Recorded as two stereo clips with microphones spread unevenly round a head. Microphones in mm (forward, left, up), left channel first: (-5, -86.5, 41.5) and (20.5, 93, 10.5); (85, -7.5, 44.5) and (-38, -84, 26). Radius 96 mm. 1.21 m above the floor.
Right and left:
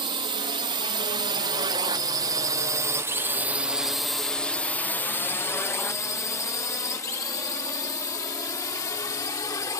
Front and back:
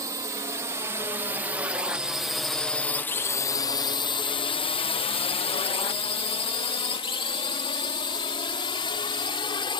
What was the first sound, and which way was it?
A drone, 145° left.